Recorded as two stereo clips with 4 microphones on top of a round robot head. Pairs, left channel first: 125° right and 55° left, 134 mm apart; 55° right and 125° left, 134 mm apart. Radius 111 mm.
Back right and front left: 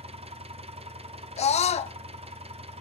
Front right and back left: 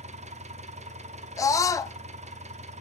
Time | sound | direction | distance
0.0 | an engine running | 95° left | 0.8 m
1.4 | a scream | 115° right | 0.9 m